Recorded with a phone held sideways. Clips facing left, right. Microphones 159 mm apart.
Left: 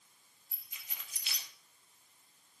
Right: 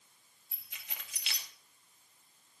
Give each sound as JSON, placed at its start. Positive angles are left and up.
{"t": 0.5, "sound": "keys jangling", "side_deg": -80, "distance_m": 2.5}